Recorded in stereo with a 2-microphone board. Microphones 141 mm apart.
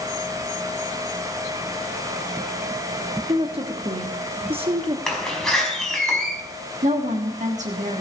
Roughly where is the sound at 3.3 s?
Right.